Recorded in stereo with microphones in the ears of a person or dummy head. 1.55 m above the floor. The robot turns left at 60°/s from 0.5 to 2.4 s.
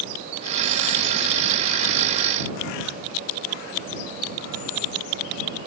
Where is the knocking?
I don't hear knocking.